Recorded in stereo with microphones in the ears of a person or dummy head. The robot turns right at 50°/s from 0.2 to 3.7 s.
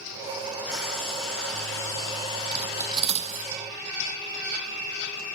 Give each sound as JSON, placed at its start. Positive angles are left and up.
{"t": 0.7, "sound": "frying", "side_deg": -10, "distance_m": 0.7}
{"t": 2.5, "sound": "cutlery clinking", "side_deg": -5, "distance_m": 0.9}